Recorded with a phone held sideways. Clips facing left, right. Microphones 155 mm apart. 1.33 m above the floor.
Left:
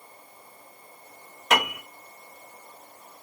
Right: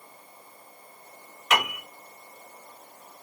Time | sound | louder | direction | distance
1.5 | a piano | left 2 dB | 35° left (ahead or behind) | 1.9 m